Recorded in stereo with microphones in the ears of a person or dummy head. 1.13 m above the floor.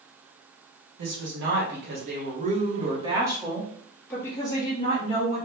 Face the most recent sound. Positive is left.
turn(degrees=35)  # may be behind; listen again after turning